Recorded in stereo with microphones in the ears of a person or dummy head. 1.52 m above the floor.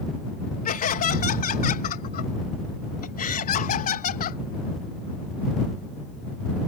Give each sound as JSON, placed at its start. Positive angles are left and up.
{"t": 0.7, "sound": "laughter", "side_deg": 45}